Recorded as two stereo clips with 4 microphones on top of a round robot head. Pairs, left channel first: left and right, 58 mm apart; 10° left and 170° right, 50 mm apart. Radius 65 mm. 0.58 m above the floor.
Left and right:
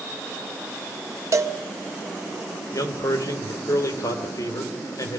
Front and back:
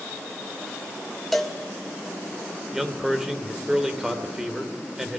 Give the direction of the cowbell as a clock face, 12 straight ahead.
3 o'clock.